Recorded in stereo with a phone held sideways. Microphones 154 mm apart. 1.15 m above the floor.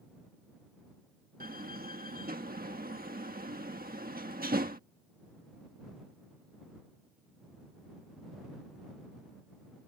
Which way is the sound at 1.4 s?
70° right (ahead or behind).